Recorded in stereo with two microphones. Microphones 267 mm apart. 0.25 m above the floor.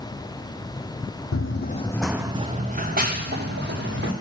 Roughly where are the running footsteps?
Left.